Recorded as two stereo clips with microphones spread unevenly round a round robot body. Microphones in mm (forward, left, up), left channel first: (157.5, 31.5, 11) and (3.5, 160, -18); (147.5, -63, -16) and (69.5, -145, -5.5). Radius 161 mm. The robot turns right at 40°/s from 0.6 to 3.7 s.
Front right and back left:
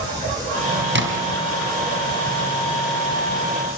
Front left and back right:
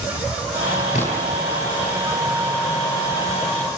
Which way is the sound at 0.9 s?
115° left.